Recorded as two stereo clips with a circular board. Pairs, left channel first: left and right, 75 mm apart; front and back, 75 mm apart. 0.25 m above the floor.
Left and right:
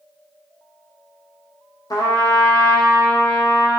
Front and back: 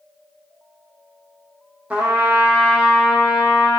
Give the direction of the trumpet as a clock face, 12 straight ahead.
8 o'clock.